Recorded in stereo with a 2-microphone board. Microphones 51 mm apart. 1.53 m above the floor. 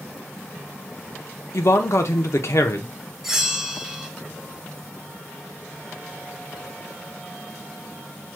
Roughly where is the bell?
Centre.